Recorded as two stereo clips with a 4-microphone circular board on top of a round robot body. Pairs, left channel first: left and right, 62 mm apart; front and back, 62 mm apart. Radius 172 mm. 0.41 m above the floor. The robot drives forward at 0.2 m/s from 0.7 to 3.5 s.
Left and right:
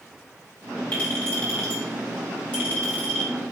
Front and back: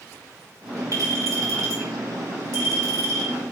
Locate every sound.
0.9 s a clink: 160° left, 3.5 m; by 3.3 s 165° left, 4 m